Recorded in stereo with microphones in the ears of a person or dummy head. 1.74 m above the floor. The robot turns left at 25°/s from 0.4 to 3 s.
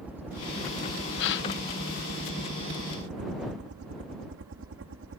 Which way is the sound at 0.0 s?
10° right (ahead or behind).